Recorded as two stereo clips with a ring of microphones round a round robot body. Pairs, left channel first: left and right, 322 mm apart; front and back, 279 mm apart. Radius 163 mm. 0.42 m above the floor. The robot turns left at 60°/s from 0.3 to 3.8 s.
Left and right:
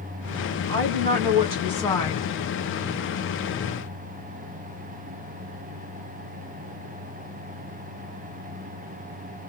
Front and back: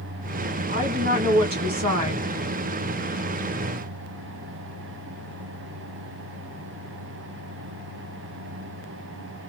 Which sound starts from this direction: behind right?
A woman speaking, at 0.7 s.